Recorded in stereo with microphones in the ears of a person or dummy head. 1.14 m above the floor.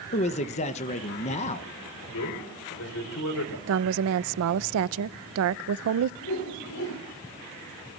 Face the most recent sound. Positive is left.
turn(degrees=65)  # may be behind; listen again after turning